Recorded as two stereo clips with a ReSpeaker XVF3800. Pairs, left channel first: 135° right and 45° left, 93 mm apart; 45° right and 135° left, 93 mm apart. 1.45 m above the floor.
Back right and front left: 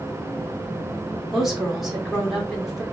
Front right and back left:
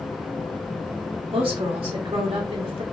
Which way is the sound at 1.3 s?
135° left.